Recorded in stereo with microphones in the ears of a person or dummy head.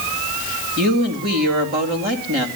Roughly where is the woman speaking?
Right.